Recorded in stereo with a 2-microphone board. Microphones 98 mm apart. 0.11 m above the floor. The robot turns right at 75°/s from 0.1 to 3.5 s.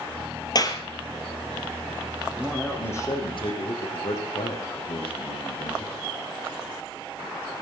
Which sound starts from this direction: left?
A clap, at 0.6 s.